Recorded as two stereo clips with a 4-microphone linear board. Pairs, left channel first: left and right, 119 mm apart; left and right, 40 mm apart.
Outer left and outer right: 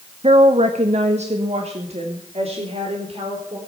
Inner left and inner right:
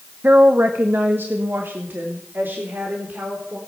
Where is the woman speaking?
55° right (ahead or behind), 0.9 m; by 3.6 s 60° right (ahead or behind), 4 m.